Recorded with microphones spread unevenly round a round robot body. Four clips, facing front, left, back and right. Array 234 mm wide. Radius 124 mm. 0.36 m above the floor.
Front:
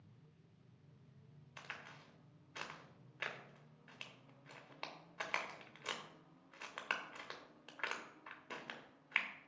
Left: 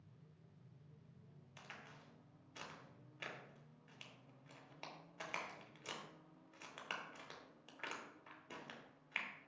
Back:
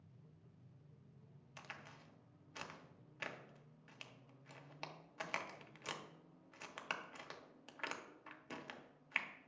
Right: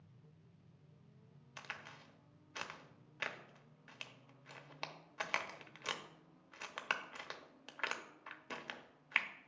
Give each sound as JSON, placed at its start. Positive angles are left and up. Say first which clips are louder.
{"t": 1.6, "sound": "a crack", "louder": "right 6 dB, front 2 dB", "azimuth_deg": -60, "distance_m": 0.9}